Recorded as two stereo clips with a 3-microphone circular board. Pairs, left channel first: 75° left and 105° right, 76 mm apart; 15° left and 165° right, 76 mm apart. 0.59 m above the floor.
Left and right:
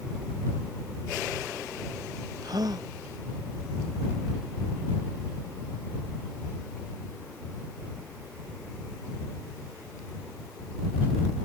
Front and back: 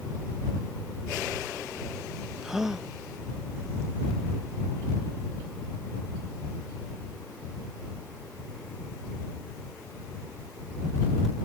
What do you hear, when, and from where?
2.4 s a gasp: 80° right